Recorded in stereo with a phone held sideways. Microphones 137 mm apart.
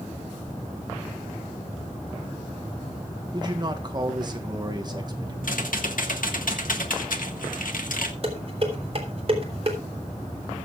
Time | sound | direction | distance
3.3 | a man speaking | 30° right (ahead or behind) | 1.8 m
5.4 | typing on a keyboard | 80° left | 1.6 m
8.2 | dishes clattering | 45° right (ahead or behind) | 3 m